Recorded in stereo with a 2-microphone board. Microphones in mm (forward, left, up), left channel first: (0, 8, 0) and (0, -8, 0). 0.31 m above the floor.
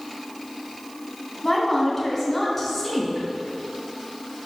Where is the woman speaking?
5° left (ahead or behind), 2.5 m.